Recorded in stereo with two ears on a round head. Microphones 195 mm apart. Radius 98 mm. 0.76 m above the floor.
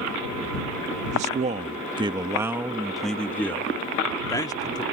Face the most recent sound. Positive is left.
turn(degrees=20)  # may be behind; listen again after turning